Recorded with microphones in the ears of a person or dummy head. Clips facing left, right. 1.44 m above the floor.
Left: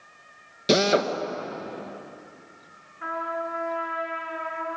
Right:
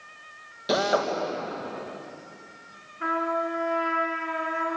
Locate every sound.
0.7 s a drill: 35° left (ahead or behind), 1.8 m
3.0 s a trumpet: 45° right (ahead or behind), 4.5 m